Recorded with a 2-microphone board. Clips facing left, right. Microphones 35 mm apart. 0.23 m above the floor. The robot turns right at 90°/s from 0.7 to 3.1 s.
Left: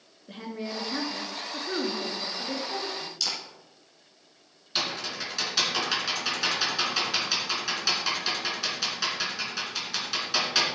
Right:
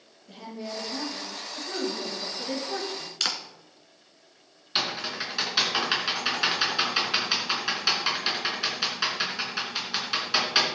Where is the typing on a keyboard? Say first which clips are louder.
Right 2 dB; 20° right (ahead or behind), 2.5 m.